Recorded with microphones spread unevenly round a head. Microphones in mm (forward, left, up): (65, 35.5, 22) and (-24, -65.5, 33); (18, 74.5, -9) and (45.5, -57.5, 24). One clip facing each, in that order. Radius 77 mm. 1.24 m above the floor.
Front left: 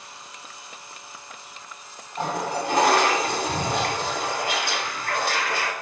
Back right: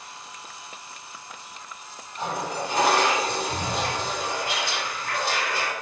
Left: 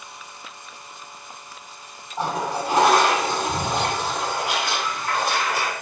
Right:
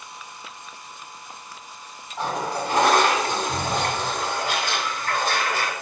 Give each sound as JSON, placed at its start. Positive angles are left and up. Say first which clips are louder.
{"t": 2.2, "sound": "a toilet flushing", "louder": "front left 3 dB, left 1 dB", "azimuth_deg": 35, "distance_m": 0.9}